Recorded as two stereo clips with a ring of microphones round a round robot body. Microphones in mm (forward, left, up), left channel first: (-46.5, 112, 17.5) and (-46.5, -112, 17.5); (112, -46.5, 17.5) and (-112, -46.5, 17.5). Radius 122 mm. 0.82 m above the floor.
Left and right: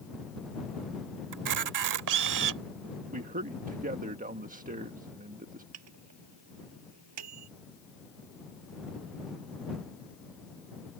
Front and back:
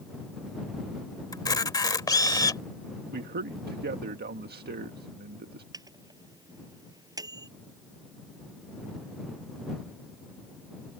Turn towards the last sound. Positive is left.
turn(degrees=-105)